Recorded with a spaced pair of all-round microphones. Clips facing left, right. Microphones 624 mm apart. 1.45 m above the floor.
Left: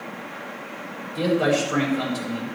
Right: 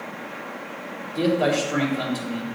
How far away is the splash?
No splash in this recording.